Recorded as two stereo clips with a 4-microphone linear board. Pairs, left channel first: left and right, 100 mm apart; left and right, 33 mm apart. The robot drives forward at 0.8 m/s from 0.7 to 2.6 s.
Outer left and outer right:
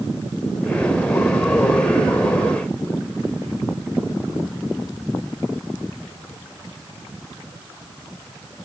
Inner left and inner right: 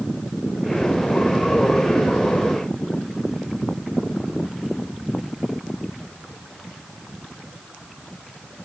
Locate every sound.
Only background noise.